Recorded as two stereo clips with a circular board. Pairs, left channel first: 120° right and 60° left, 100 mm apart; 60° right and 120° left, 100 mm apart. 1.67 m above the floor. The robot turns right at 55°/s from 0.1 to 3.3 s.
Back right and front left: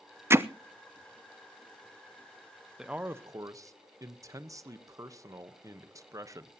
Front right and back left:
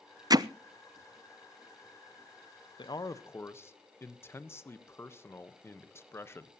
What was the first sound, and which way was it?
Hammering, 110° left.